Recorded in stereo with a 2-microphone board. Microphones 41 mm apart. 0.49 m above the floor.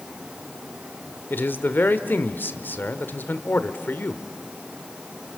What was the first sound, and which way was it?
A man speaking, 55° left (ahead or behind).